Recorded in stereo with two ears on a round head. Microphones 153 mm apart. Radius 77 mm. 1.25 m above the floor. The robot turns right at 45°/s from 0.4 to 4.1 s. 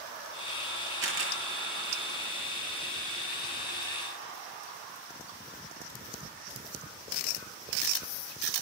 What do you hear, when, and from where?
1.0 s a camera shutter: 85° right, 8 m; by 1.3 s 75° right (ahead or behind), 8 m